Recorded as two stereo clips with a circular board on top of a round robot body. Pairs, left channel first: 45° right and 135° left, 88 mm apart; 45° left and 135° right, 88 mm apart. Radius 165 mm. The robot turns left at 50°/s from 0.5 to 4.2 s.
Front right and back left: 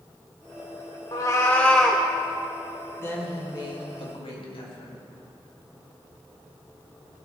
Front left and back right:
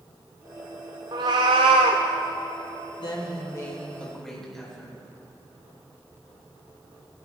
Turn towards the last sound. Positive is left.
turn(degrees=-40)